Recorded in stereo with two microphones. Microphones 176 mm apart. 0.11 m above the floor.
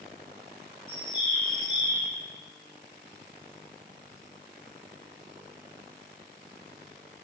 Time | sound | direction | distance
0.9 | a bird | 25° left (ahead or behind) | 1.7 m